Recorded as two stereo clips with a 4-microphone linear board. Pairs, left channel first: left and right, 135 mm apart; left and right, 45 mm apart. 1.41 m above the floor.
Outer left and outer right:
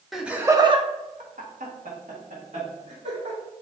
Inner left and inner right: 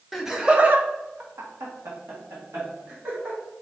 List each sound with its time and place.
0.1 s laughter: centre (ahead or behind), 0.9 m; by 3.4 s 65° right (ahead or behind), 2.5 m